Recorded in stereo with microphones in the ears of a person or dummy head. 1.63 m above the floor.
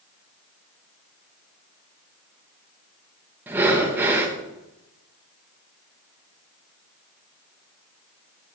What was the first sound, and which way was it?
Breathing, 5° right (ahead or behind).